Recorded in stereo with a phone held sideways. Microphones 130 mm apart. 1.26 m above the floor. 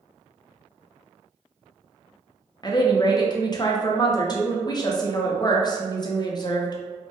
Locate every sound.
2.6 s a woman speaking: 35° left (ahead or behind), 0.5 m